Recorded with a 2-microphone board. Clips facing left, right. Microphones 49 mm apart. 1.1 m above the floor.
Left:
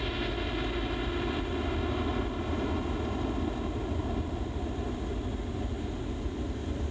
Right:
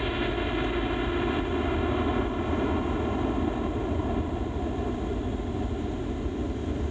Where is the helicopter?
20° right (ahead or behind).